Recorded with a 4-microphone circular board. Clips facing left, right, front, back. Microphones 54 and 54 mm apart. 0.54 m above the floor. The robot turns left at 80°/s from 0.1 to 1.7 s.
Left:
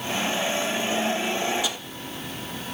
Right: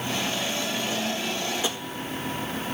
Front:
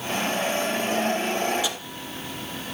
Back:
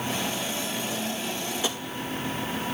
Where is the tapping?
135° right, 0.6 m; by 1.8 s 145° right, 0.6 m.